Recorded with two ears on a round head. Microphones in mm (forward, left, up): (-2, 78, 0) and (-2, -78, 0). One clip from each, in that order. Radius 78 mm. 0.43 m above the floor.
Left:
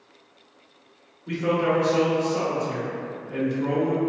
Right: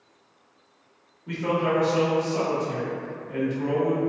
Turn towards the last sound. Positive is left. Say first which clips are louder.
# left 2 dB
turn(degrees=0)  # may be behind; listen again after turning